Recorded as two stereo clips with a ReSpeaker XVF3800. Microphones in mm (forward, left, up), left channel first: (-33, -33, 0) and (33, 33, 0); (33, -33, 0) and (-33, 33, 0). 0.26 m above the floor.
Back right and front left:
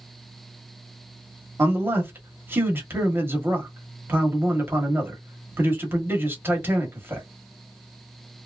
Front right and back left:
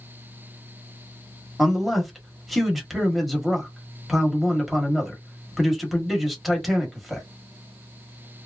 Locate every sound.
1.6 s a man speaking: 45° left, 1.1 m